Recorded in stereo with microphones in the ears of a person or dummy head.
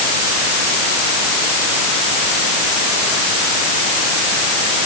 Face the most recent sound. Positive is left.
No sound to turn to.